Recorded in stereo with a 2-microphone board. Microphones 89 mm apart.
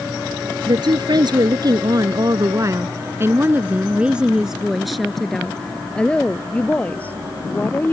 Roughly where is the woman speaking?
Right.